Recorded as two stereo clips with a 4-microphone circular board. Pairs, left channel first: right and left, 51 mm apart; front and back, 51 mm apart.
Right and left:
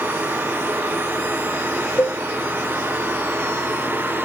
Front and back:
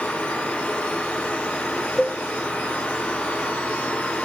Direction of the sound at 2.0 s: 70° right.